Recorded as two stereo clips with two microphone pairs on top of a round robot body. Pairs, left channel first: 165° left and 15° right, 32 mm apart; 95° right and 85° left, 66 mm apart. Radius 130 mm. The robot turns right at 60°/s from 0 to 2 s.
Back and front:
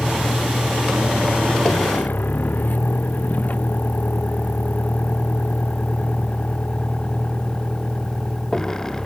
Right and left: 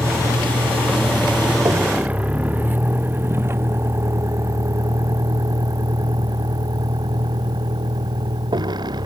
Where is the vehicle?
50° left; by 9.1 s 85° left.